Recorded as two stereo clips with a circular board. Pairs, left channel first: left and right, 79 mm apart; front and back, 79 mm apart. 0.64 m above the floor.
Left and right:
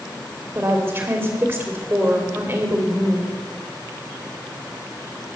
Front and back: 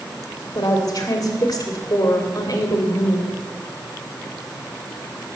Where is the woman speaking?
30° right, 2.5 m.